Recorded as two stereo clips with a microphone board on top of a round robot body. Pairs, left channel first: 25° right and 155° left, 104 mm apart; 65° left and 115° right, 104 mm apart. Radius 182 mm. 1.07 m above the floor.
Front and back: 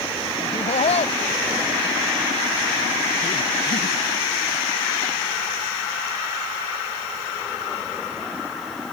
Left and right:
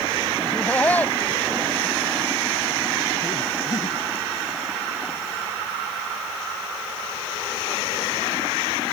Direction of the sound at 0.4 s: 10° right.